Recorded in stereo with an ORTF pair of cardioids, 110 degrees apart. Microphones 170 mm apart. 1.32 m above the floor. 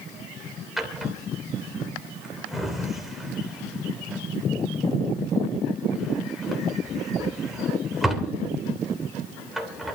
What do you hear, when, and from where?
0.8 s a drawer: straight ahead, 3 m